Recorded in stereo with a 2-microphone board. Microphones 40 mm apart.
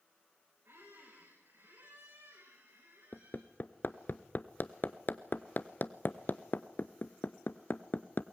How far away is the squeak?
About 8 m.